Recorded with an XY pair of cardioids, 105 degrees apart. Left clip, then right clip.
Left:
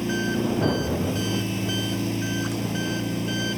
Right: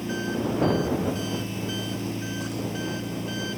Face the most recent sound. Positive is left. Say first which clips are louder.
# left 3 dB
turn(degrees=35)